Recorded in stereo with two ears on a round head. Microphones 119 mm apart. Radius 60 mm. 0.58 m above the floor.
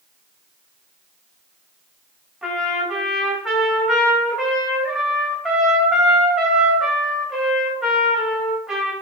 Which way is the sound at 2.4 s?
5° right (ahead or behind).